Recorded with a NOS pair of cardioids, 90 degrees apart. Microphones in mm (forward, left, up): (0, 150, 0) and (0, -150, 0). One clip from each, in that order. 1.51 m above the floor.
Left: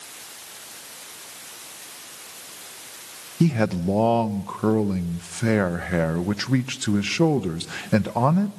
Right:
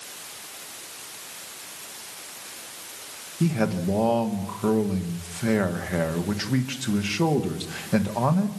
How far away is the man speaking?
About 1.5 m.